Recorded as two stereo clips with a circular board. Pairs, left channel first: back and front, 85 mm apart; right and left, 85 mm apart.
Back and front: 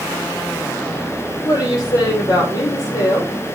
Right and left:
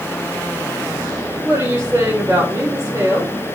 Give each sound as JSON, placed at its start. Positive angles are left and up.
{"t": 1.4, "sound": "a woman speaking", "azimuth_deg": 160, "distance_m": 3.5}